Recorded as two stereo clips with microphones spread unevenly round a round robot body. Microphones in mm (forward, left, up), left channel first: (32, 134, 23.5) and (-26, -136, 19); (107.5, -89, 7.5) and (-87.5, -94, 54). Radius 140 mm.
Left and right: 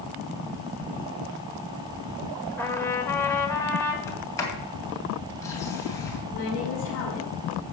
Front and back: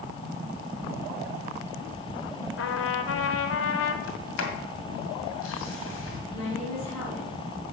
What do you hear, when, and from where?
2.6 s a trumpet: 5° right, 1.4 m
4.1 s a sliding door: straight ahead, 2 m
6.3 s a woman speaking: 35° left, 6 m